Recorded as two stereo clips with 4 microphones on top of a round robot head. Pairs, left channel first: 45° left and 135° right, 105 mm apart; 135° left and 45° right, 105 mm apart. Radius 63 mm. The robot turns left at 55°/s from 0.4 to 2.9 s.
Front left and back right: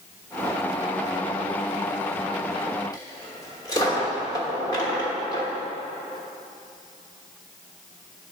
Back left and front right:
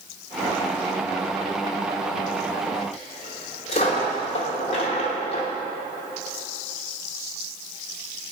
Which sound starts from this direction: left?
A dropped coin, at 2.9 s.